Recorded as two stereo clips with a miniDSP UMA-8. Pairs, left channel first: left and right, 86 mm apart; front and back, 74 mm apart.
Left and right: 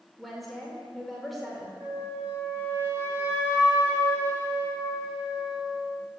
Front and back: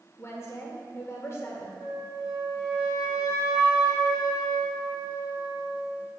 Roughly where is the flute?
Ahead right.